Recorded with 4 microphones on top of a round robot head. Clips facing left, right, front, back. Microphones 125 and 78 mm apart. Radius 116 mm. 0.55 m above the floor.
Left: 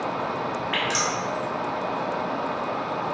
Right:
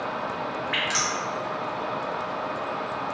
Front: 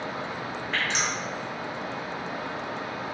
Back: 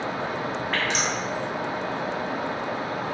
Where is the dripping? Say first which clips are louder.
Left 3 dB, back 1 dB; 170° left, 1.1 m.